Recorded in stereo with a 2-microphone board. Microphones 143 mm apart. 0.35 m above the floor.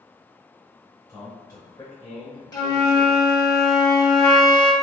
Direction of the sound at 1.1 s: 25° left (ahead or behind).